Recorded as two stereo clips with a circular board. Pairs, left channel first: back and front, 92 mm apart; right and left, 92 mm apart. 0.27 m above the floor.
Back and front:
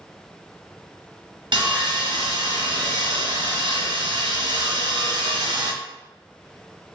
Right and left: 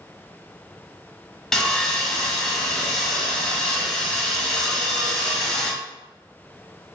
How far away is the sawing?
About 0.7 m.